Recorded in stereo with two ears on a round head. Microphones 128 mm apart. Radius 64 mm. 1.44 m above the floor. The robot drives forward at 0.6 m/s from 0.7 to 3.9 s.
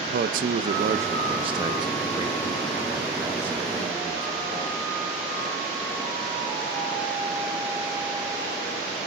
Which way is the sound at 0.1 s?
65° right (ahead or behind).